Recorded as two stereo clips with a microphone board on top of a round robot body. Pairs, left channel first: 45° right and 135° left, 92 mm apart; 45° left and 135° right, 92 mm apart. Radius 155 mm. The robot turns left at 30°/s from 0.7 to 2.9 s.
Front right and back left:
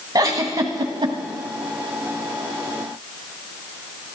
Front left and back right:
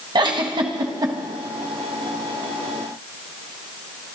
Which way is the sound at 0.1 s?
175° right.